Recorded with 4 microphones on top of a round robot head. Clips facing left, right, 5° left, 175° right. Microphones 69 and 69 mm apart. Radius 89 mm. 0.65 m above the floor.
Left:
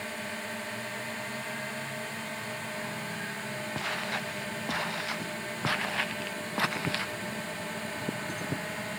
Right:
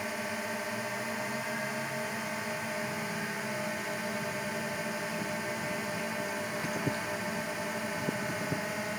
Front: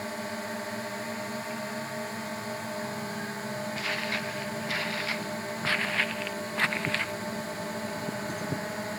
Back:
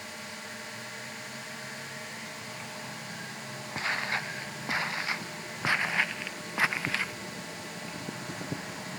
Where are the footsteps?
120° left; by 7.1 s 95° left.